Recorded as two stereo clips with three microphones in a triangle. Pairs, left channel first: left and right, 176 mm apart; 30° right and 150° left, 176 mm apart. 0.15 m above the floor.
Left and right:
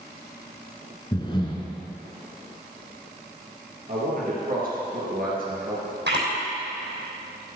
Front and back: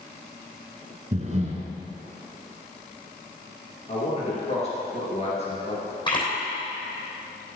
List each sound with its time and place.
1.1 s breathing: 135° left, 1.0 m
3.9 s a man speaking: 75° right, 3 m
6.1 s a camera shutter: 90° right, 3 m